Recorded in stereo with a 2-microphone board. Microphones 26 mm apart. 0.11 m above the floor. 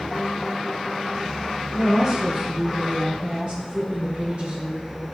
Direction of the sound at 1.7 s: 20° right (ahead or behind).